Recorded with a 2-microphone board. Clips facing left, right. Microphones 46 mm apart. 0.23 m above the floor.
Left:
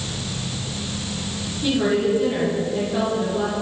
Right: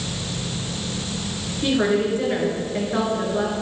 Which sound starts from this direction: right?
A woman speaking, at 1.6 s.